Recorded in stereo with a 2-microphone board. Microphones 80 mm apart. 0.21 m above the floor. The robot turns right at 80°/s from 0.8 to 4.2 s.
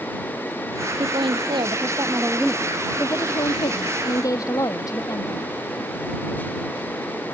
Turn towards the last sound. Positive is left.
turn(degrees=135)